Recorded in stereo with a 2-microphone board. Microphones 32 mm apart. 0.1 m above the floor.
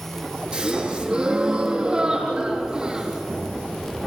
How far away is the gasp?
About 4.5 m.